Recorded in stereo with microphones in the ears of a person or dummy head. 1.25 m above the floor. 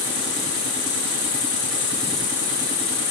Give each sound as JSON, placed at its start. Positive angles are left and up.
{"t": 0.0, "sound": "an insect", "side_deg": 70, "distance_m": 1.1}